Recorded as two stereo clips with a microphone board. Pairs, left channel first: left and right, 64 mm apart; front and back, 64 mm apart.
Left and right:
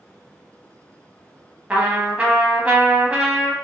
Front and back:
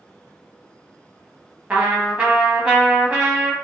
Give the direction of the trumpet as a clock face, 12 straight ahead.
4 o'clock.